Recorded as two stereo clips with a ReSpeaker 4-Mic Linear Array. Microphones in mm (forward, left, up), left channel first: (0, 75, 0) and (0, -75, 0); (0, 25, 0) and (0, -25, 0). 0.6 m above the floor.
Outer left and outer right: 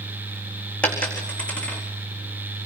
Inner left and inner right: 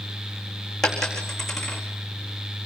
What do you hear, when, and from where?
0.8 s a dropped coin: 10° left (ahead or behind), 4.5 m